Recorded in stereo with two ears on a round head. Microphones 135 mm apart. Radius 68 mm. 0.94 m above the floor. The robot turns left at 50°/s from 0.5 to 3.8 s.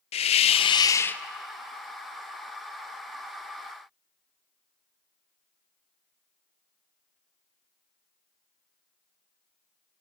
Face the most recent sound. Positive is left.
turn(degrees=-120)